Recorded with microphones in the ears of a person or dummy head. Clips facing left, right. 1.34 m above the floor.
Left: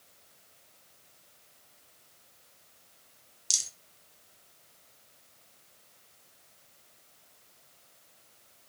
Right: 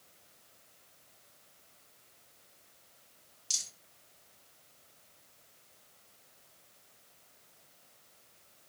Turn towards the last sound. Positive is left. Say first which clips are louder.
# left 4 dB
turn(degrees=55)  # may be behind; listen again after turning